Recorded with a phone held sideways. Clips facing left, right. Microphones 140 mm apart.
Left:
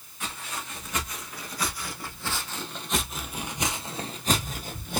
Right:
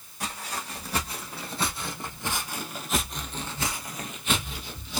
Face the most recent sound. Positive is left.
turn(degrees=50)  # may be behind; listen again after turning